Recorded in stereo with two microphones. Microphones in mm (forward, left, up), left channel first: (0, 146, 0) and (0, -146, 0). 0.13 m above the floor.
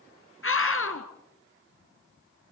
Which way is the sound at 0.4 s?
45° left (ahead or behind).